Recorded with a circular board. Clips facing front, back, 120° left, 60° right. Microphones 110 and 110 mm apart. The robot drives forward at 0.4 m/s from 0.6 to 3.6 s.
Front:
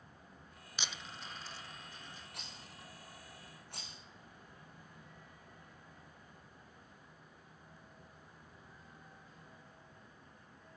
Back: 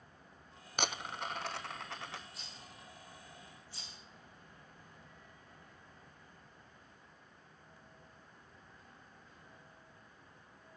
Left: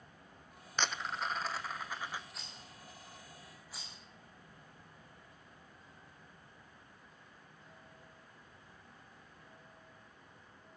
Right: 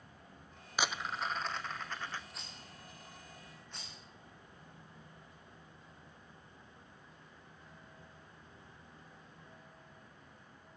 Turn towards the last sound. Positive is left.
turn(degrees=35)